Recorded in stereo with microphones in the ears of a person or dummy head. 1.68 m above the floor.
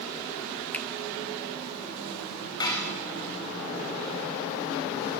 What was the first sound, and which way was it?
A finger snap, centre (ahead or behind).